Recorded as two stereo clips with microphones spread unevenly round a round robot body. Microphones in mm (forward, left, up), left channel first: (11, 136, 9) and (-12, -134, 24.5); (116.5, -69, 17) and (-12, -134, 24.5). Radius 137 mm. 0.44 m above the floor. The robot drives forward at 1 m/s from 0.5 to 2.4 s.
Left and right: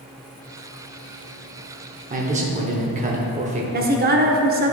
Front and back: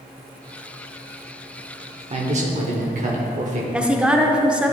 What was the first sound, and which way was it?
A man speaking, 140° right.